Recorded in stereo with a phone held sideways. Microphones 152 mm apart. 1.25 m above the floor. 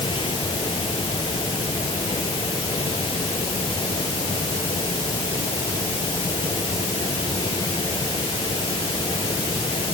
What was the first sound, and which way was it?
A fan, 35° left (ahead or behind).